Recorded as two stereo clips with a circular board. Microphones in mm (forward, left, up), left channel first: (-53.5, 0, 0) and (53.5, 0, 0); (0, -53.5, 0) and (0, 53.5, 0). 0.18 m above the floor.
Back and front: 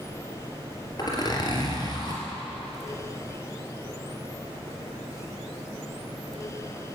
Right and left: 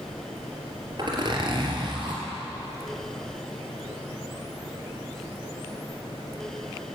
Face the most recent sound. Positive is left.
turn(degrees=135)